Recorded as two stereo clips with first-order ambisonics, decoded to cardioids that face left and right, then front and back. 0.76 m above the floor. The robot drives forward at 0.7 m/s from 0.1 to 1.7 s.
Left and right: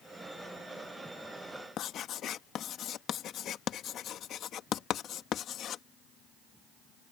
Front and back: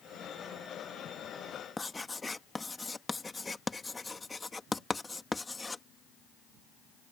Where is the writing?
75° left.